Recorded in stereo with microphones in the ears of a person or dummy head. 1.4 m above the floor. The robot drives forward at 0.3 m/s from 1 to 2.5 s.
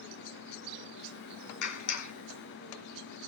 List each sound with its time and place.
1.6 s a clap: 60° left (ahead or behind), 3 m